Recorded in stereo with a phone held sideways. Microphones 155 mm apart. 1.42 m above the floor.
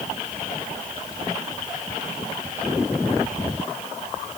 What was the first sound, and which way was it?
Only background noise.